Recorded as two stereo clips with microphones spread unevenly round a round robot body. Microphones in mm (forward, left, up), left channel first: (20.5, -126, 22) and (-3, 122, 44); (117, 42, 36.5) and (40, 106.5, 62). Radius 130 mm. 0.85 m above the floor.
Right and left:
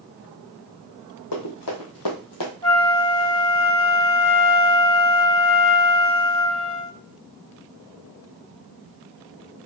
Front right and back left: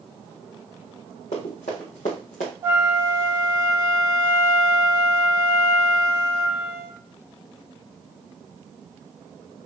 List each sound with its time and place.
1.3 s running footsteps: 85° right, 3 m; by 2.5 s 90° right, 1.9 m
2.6 s a flute: 160° right, 2 m